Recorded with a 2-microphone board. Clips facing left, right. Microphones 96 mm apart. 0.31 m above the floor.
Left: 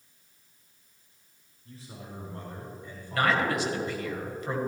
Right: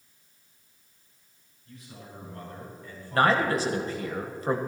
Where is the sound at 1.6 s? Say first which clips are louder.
Left 2 dB; 35° left (ahead or behind), 5 m; by 4.1 s 10° left (ahead or behind), 6 m.